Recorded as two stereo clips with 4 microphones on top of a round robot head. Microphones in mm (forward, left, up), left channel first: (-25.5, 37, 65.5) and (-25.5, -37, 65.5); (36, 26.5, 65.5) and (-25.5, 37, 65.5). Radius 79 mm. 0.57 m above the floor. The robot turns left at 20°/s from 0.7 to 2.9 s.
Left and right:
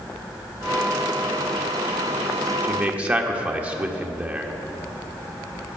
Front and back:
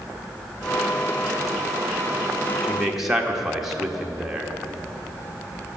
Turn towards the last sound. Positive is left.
turn(degrees=-115)